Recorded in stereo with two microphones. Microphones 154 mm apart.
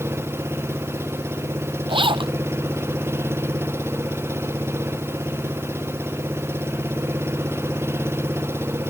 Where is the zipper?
35° right (ahead or behind).